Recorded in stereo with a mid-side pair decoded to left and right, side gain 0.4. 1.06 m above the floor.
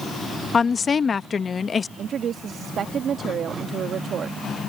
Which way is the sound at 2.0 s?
65° right.